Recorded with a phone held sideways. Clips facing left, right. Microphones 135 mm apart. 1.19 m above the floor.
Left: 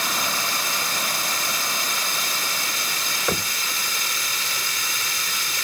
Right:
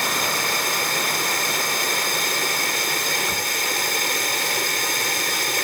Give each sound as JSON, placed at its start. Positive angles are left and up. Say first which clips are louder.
{"t": 0.0, "sound": "running water", "louder": "right 3 dB", "side_deg": -60}
{"t": 3.3, "sound": "knocking", "louder": "left 2 dB", "side_deg": 75}